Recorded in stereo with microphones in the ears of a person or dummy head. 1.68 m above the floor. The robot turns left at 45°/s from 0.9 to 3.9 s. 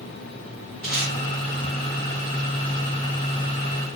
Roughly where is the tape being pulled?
Centre.